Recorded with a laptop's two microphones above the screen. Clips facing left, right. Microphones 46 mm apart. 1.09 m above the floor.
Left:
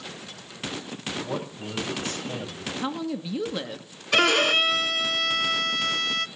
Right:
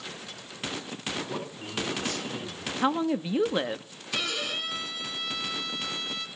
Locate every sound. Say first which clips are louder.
1.2 s a man speaking: left 3 dB; 45° left (ahead or behind), 6.5 m
2.8 s a woman speaking: right 5 dB; 25° right (ahead or behind), 1.2 m
4.1 s a violin: left 11 dB; 60° left (ahead or behind), 0.7 m